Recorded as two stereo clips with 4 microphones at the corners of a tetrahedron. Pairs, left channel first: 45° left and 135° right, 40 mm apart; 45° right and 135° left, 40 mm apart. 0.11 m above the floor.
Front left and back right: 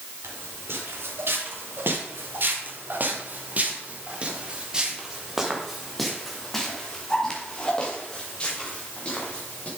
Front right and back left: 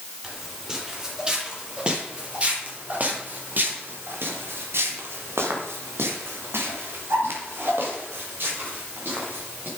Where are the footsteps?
145° right, 4.5 m; by 9.7 s 100° left, 5.5 m.